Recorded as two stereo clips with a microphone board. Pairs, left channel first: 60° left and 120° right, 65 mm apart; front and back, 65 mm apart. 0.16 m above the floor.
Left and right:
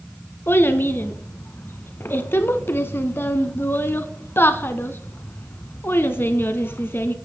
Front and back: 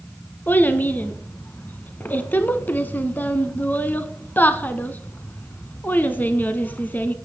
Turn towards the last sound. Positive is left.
turn(degrees=40)